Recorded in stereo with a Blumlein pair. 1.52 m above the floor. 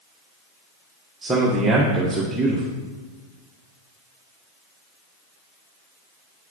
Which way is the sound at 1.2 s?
15° right.